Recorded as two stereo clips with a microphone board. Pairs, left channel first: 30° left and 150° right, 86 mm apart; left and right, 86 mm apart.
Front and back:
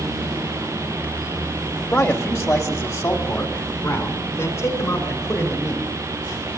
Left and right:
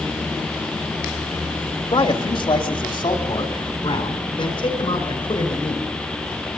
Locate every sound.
1.9 s a man speaking: 90° left, 1.8 m; by 5.9 s 80° left, 5.5 m